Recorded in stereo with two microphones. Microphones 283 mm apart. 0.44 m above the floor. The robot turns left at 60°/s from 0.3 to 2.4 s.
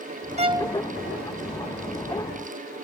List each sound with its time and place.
0.4 s a violin: 25° right (ahead or behind); by 0.8 s 5° right (ahead or behind)